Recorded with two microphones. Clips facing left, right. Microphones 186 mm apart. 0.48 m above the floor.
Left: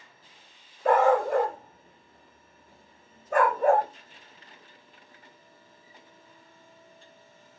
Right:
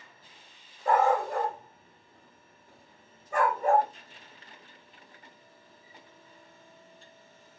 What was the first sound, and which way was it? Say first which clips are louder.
A dog barking: left 4 dB; 65° left (ahead or behind).